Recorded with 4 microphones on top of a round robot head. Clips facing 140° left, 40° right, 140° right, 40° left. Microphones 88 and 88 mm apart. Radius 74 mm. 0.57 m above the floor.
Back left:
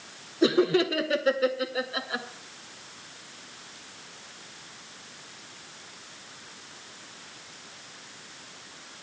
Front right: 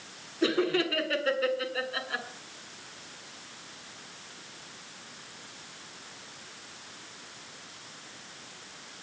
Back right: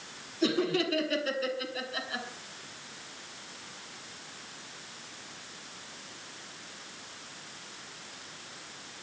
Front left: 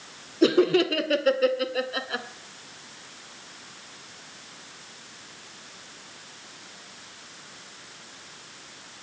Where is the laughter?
70° left, 1.7 m.